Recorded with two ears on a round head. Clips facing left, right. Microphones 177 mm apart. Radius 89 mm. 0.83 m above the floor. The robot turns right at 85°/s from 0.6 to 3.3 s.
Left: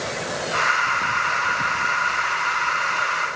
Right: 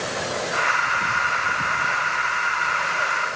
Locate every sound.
Only background noise.